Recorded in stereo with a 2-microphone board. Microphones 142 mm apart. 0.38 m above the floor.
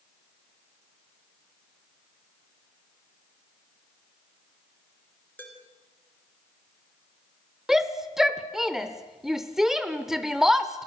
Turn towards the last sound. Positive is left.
turn(degrees=0)  # may be behind; listen again after turning